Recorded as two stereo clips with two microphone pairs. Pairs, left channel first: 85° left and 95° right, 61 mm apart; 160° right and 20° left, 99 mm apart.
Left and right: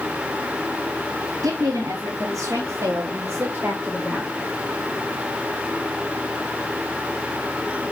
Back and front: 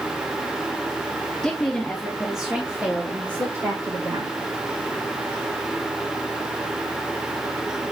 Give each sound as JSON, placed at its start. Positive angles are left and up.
{"t": 1.4, "sound": "a woman speaking", "azimuth_deg": -80, "distance_m": 3.5}